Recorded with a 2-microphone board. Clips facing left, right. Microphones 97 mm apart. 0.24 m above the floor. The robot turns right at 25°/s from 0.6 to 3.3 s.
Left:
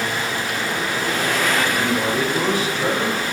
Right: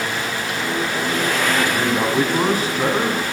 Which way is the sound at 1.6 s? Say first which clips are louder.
Right 1 dB; 90° right.